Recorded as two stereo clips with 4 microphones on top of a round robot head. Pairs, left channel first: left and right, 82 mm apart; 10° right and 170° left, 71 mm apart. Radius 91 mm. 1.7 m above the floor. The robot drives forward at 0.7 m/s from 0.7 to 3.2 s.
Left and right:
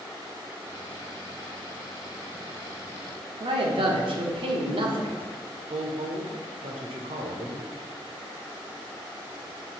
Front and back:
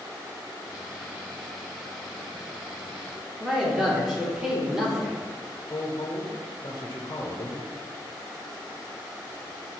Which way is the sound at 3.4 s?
105° right.